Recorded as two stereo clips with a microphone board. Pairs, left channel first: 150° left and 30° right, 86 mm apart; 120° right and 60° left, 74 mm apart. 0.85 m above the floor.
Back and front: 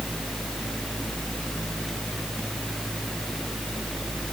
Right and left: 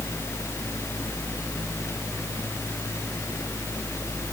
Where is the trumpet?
No trumpet in this recording.